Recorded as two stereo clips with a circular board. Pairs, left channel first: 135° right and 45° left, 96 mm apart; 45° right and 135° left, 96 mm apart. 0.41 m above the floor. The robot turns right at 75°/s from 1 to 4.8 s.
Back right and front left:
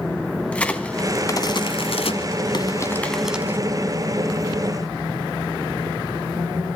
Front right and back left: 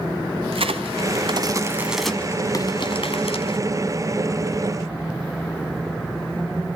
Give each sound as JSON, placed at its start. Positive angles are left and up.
{"t": 0.5, "sound": "a crack", "azimuth_deg": 150, "distance_m": 1.6}